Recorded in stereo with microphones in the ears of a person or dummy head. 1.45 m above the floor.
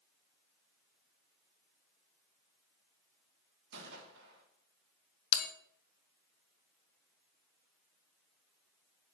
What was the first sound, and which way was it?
A gunshot, 70° right (ahead or behind).